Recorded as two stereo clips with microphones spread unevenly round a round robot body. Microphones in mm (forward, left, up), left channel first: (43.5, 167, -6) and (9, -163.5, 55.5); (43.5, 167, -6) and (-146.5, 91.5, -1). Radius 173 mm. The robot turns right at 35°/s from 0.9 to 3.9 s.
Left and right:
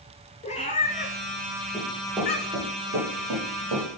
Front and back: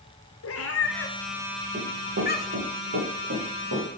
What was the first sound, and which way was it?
A cat meowing, 15° left.